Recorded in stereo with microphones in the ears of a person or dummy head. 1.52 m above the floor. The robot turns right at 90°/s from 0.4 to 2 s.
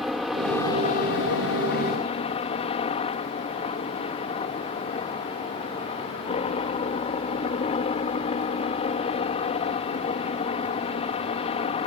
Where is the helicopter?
Straight ahead; by 11.9 s 145° left.